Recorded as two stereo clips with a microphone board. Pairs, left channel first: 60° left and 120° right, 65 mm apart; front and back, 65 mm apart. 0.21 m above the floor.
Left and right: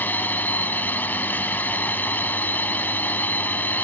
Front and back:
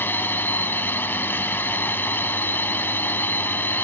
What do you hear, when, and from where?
0.0 s a drone: 25° left